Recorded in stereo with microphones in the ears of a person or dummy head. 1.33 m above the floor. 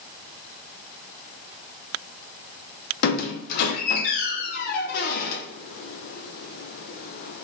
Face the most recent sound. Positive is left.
turn(degrees=60)  # may be behind; listen again after turning